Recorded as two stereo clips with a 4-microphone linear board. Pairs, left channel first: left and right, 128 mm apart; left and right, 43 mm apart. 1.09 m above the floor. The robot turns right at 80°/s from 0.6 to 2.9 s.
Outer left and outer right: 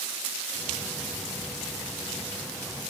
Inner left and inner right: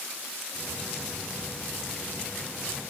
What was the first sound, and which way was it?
Only background noise.